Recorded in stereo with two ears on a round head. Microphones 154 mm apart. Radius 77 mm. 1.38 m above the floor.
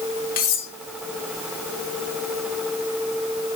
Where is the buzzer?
I don't hear a buzzer.